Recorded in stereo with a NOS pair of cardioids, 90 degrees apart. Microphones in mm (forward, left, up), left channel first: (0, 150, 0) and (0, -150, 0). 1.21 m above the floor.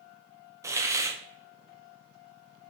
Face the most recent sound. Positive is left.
turn(degrees=-10)